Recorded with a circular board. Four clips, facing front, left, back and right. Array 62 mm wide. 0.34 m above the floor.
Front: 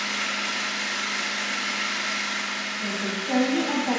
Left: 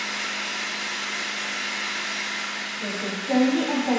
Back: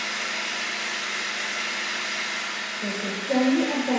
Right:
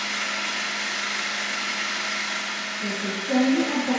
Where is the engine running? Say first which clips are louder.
Right 2 dB, front 1 dB; 55° right, 1.1 m.